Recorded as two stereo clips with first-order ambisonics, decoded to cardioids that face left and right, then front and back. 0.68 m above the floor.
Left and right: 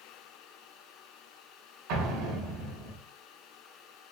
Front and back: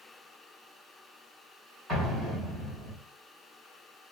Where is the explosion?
85° right, 3.5 m.